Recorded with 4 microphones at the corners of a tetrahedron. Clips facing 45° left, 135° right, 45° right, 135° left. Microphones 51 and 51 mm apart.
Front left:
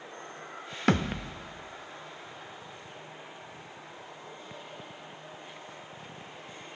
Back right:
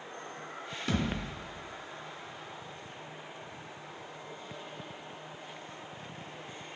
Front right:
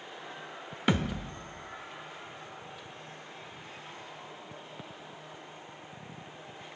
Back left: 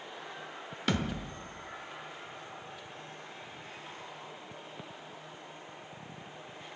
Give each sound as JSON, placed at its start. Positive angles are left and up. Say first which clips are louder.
{"t": 0.9, "sound": "a thud", "louder": "front left 6 dB, front right 3 dB", "azimuth_deg": 20, "distance_m": 0.6}